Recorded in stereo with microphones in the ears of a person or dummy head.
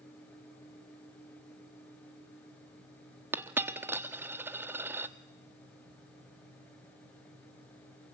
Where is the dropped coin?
5° right (ahead or behind), 1.2 m.